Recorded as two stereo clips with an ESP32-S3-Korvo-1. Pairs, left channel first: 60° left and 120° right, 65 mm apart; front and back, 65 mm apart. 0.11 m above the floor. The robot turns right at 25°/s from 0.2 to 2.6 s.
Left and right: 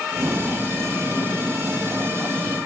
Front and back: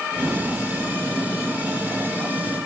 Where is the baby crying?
I don't hear a baby crying.